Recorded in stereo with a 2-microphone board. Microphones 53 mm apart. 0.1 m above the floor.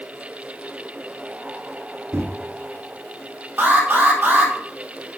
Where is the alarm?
35° right (ahead or behind), 3 m.